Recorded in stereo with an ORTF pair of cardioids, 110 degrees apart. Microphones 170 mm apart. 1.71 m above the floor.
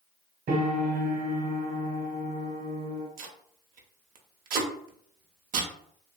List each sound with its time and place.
0.5 s a piano: 60° right, 1.1 m
3.2 s tape being pulled: 60° right, 0.6 m